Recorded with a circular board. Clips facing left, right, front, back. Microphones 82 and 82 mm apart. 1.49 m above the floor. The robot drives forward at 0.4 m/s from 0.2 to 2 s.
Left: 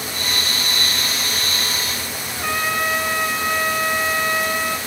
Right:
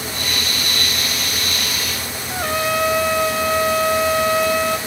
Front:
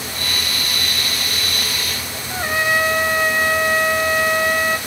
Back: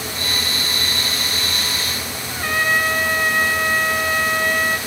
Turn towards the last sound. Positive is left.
turn(degrees=-75)